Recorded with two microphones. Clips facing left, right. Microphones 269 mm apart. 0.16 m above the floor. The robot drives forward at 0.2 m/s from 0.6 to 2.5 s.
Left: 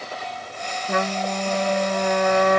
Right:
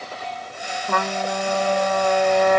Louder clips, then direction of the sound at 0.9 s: Left 1 dB; 65° right (ahead or behind).